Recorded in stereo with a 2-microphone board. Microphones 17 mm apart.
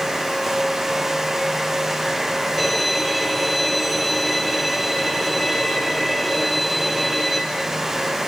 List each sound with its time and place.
2.6 s a violin: 5° right (ahead or behind), 2.5 m